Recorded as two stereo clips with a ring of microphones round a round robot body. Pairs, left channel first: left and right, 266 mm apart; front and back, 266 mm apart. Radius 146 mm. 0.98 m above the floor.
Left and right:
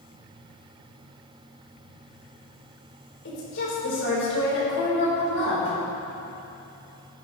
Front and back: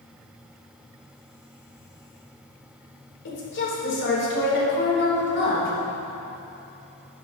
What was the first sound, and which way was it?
A woman speaking, 40° left.